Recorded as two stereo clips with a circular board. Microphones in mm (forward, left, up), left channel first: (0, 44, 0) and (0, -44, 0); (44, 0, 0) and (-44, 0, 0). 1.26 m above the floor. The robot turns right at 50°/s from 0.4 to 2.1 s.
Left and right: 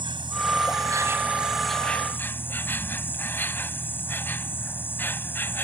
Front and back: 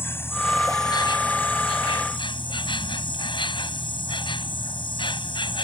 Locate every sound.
0.0 s an insect: 65° right; by 5.7 s 20° left